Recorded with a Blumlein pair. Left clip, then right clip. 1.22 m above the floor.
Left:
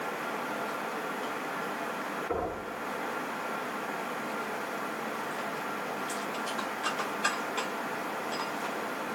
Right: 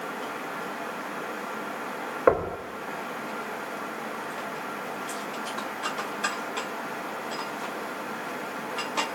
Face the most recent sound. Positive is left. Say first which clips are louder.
# right 13 dB
turn(degrees=-45)